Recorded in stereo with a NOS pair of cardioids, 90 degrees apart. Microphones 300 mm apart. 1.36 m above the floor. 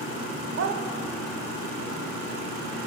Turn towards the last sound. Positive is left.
turn(degrees=-60)